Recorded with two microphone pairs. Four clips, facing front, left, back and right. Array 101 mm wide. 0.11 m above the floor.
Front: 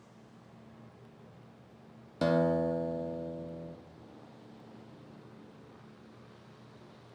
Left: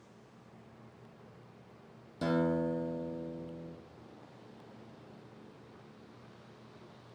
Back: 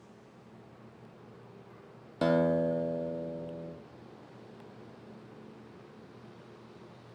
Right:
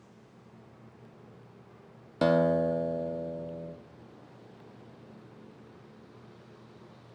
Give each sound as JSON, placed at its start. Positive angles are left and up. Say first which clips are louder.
{"t": 2.2, "sound": "a guitar", "louder": "right 7 dB, back 1 dB", "azimuth_deg": -100, "distance_m": 2.0}